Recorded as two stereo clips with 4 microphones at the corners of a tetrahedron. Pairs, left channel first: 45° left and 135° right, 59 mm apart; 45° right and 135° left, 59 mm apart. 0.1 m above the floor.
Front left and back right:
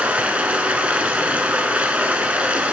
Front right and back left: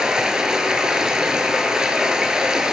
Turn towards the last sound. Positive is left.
turn(degrees=-165)